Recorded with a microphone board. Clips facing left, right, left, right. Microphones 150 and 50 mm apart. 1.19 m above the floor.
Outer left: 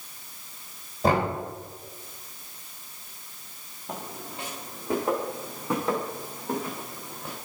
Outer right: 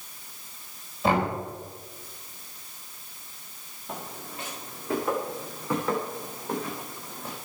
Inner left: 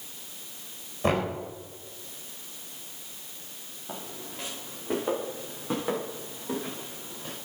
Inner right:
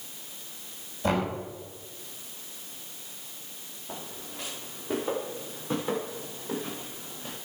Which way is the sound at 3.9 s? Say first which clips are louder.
Outer left 1 dB, inner left 1 dB; 35° left (ahead or behind).